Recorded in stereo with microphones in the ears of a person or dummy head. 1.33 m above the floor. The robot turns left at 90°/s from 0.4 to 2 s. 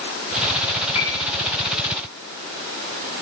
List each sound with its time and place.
0.9 s a piano: 30° left (ahead or behind), 5 m; by 1.2 s 60° left (ahead or behind), 5 m